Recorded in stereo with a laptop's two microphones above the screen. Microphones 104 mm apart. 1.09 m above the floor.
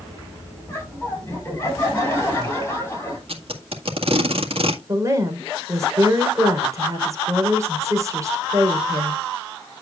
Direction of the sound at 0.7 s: 25° left (ahead or behind).